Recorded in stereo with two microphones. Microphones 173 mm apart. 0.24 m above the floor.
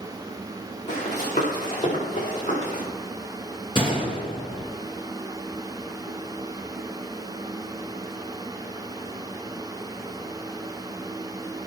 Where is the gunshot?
30° left (ahead or behind), 3.5 m.